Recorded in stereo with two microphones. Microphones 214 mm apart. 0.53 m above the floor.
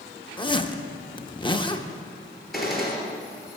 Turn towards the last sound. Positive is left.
turn(degrees=0)  # may be behind; listen again after turning